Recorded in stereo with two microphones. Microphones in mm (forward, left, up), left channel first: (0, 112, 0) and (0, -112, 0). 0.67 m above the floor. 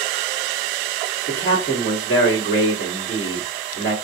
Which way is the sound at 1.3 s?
50° left (ahead or behind).